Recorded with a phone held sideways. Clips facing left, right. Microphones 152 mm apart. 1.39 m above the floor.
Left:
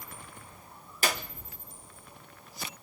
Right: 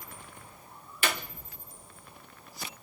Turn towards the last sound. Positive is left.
turn(degrees=40)  # may be behind; listen again after turning